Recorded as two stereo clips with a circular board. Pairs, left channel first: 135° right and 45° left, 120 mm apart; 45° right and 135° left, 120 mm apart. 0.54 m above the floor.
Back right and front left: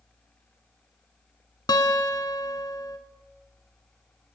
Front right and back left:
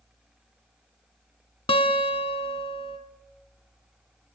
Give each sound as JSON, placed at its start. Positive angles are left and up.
{"t": 1.7, "sound": "a guitar", "azimuth_deg": -80, "distance_m": 1.1}